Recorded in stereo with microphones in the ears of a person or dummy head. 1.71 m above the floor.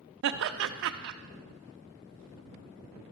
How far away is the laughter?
About 0.6 m.